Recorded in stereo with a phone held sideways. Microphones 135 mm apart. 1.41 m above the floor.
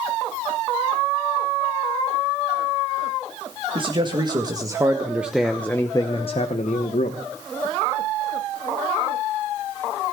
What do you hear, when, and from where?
3.8 s a man speaking: 40° right (ahead or behind), 1.9 m; by 7.2 s 75° left (ahead or behind), 1.3 m